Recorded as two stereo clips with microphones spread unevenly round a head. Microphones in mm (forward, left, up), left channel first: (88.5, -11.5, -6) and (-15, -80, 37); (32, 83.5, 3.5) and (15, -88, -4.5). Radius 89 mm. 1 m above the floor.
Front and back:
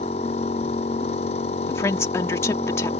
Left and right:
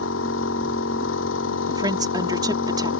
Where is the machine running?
85° left.